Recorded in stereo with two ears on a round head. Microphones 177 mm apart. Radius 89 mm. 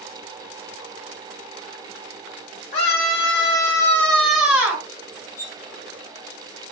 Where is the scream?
35° left (ahead or behind), 1.1 m; by 4.8 s 15° right (ahead or behind), 1.0 m.